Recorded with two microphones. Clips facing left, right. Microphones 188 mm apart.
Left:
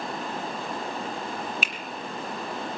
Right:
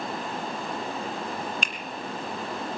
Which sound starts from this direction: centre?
A finger snap, at 1.6 s.